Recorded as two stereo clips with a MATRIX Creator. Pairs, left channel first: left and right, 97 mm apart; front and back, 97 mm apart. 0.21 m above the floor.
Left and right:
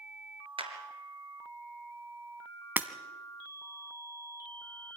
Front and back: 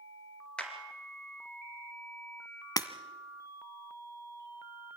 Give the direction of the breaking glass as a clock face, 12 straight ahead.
1 o'clock.